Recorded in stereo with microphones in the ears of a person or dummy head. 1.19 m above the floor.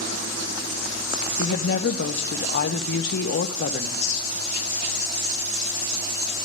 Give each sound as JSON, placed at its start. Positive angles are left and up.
{"t": 1.4, "sound": "a woman speaking", "side_deg": 60, "distance_m": 0.5}